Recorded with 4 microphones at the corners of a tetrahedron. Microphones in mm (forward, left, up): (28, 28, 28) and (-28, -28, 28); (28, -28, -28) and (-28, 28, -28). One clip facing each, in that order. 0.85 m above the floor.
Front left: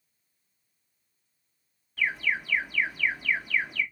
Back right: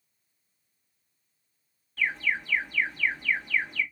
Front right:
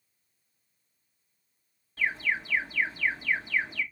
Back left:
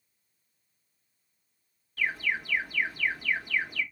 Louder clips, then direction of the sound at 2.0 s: Even, front right 1 dB; 35° right.